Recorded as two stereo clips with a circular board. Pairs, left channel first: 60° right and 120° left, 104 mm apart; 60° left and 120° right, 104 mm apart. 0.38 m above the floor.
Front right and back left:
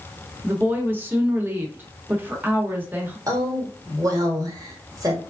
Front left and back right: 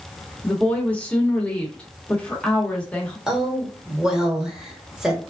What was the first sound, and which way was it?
A woman speaking, 110° left.